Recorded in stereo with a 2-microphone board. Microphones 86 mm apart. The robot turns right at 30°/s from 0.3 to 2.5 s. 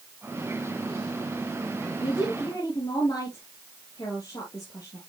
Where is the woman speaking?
55° left (ahead or behind), 3 m; by 5.0 s 45° left (ahead or behind), 3 m.